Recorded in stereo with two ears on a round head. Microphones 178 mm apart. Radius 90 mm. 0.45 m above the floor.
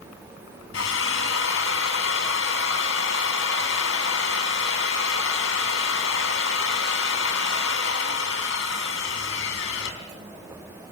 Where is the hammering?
I don't hear hammering.